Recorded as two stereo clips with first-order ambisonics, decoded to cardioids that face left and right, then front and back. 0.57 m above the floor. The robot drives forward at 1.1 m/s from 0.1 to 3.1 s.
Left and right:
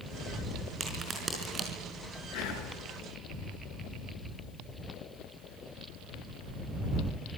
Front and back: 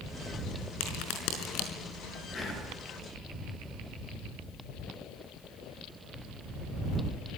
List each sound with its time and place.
0.8 s a crack: 20° right, 5.5 m
2.3 s whispering: 65° left, 8.5 m; by 2.7 s 70° left, 8.5 m